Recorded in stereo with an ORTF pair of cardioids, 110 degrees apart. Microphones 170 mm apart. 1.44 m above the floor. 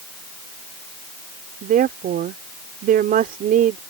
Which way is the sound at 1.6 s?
60° right.